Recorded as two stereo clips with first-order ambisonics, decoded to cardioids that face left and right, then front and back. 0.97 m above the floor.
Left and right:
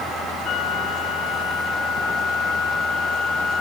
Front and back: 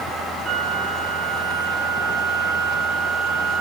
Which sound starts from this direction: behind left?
A flute, at 0.4 s.